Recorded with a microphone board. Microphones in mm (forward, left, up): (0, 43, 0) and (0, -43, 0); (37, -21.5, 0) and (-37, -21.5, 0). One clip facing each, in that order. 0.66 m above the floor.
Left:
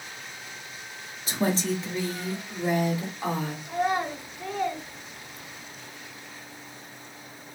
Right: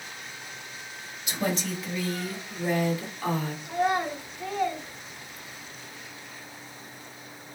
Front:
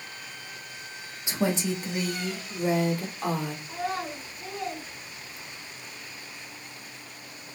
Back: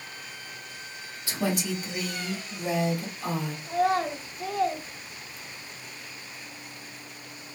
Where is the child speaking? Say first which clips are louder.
Right 1 dB, back 11 dB; straight behind, 1.2 m.